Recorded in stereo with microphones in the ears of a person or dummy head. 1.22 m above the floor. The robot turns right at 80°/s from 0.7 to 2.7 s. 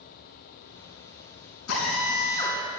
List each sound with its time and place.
1.7 s a drill: 100° left, 5.5 m; by 2.6 s 175° left, 5.5 m